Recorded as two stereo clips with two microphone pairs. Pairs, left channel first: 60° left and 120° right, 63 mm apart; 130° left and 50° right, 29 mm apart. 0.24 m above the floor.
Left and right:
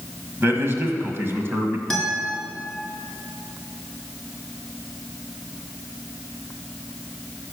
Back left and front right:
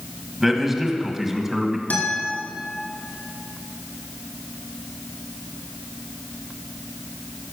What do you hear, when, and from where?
0.4 s a man speaking: 120° right, 1.4 m
1.9 s a guitar: 140° left, 2.5 m